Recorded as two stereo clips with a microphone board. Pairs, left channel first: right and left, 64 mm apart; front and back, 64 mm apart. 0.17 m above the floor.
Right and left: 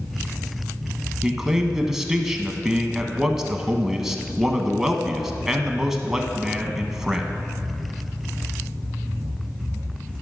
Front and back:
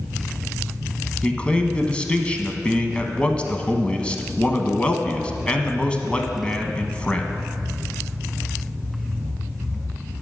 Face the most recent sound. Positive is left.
turn(degrees=20)